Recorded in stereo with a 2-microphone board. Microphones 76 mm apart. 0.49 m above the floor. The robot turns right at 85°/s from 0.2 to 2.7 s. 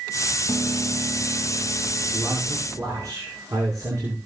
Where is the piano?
155° right, 2.5 m; by 3.1 s 35° left, 2.5 m.